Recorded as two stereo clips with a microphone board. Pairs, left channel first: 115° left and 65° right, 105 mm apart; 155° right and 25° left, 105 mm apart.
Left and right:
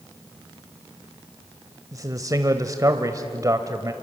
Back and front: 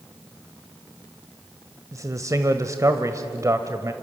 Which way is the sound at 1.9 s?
25° right.